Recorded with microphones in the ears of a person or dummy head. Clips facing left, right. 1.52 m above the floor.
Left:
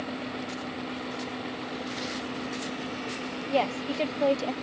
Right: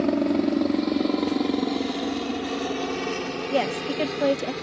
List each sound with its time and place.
0.0 s a helicopter: 70° right (ahead or behind)
3.5 s a woman speaking: 20° right (ahead or behind)